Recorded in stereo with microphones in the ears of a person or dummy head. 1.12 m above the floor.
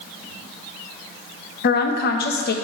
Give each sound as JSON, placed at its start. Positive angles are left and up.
{"t": 1.6, "sound": "a woman speaking", "side_deg": 50, "distance_m": 0.9}